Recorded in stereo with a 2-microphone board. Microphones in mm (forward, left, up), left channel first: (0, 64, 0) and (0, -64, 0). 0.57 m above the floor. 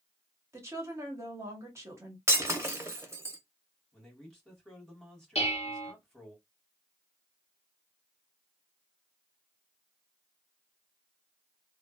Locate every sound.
0.5 s a woman speaking: 20° right (ahead or behind), 1.1 m
2.3 s breaking glass: 20° right (ahead or behind), 0.7 m
3.9 s a man speaking: 5° left (ahead or behind), 1.6 m
5.3 s dishes clattering: 55° left (ahead or behind), 0.7 m